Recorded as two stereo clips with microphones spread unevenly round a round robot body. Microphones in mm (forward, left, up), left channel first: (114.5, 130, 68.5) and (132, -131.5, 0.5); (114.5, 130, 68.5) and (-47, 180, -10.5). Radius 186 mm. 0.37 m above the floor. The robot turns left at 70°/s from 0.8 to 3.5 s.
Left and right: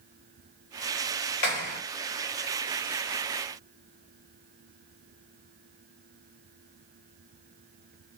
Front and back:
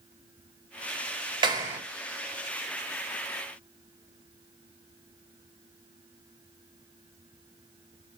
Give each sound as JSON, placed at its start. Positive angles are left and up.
{"t": 1.4, "sound": "a clap", "azimuth_deg": 125, "distance_m": 1.8}